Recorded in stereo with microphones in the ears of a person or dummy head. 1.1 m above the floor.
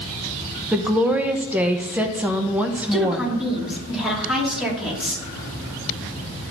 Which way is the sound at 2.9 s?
5° right (ahead or behind).